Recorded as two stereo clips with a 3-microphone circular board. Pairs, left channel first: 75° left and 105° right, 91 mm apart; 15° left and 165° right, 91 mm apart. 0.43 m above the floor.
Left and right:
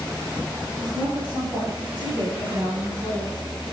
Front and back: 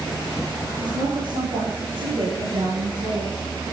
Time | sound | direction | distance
0.8 | a woman speaking | 140° right | 6.5 m